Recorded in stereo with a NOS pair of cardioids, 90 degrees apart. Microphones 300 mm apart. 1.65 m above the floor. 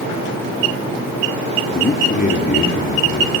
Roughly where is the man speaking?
Ahead left.